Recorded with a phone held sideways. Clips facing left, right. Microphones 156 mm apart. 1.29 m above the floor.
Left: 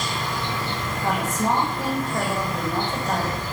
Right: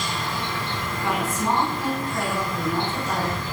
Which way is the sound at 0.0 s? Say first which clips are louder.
Left 1 dB; 45° left (ahead or behind).